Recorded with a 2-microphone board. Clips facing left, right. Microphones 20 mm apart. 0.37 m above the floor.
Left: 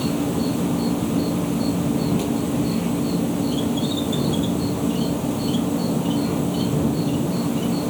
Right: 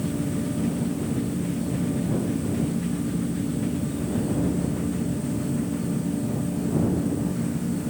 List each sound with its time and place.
0.0 s an insect: 65° left (ahead or behind)